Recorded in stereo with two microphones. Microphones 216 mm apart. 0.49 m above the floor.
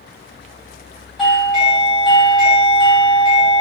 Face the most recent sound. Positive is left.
turn(degrees=0)  # may be behind; listen again after turning